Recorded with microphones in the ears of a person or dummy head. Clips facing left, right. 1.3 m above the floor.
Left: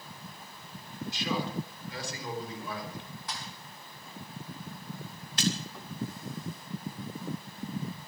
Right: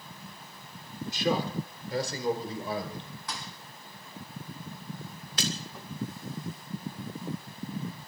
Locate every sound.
1.1 s a man speaking: 45° right (ahead or behind), 3.5 m; by 3.0 s 25° right (ahead or behind), 5.5 m
3.3 s a thud: 75° right (ahead or behind), 3 m
5.4 s a splash: 70° right (ahead or behind), 1.9 m